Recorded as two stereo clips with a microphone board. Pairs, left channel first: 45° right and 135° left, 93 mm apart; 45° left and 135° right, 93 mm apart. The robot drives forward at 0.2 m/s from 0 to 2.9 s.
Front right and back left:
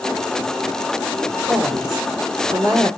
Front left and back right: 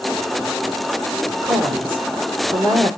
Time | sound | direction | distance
1.4 | a woman speaking | 175° right | 1.4 m